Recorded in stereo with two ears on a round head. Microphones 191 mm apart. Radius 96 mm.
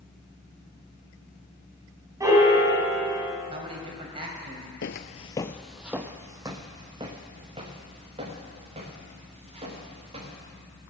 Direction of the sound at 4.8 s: 55° left (ahead or behind).